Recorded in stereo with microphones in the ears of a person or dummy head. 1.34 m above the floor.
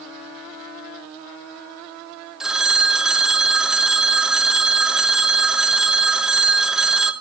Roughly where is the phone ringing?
Centre.